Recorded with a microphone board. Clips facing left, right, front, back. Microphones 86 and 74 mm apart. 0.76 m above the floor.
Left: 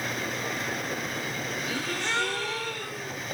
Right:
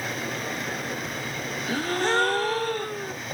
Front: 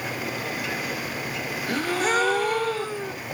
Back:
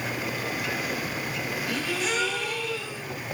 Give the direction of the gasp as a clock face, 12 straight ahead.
2 o'clock.